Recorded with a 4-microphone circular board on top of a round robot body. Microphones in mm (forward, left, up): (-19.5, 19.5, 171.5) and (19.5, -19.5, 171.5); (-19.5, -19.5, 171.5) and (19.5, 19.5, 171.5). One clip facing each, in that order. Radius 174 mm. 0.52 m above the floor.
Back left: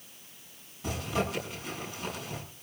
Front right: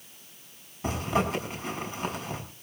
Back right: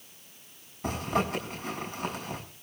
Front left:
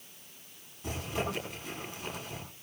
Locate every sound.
0.8 s a zipper: 100° right, 6.5 m